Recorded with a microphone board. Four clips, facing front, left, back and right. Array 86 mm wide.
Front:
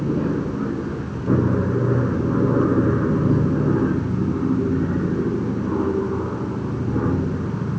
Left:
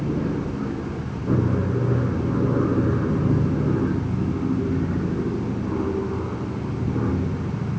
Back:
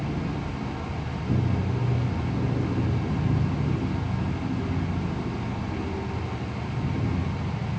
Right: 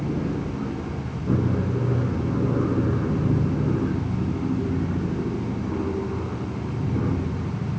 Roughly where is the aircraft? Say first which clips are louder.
Left 2 dB, front 9 dB; ahead.